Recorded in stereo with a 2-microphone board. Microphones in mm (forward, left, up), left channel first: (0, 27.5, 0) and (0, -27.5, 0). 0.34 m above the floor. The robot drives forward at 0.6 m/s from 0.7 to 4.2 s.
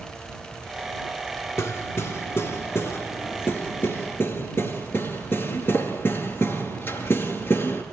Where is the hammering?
60° left (ahead or behind), 3.5 m; by 7.8 s 45° left (ahead or behind), 4.5 m.